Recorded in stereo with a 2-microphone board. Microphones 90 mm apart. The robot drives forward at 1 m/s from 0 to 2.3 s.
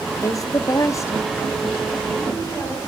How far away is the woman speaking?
About 0.7 m.